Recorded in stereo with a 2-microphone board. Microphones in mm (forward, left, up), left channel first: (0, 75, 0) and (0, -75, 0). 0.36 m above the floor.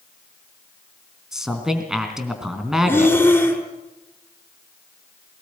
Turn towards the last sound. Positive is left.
turn(degrees=15)  # may be behind; listen again after turning